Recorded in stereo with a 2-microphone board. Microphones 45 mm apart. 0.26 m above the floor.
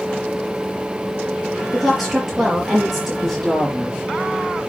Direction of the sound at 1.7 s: 5° right (ahead or behind).